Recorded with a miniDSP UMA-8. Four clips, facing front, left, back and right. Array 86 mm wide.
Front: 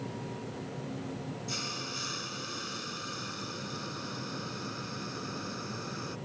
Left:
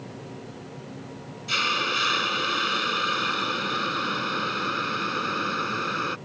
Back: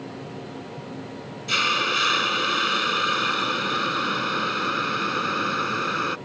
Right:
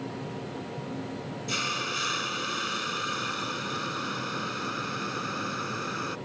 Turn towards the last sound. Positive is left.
turn(degrees=155)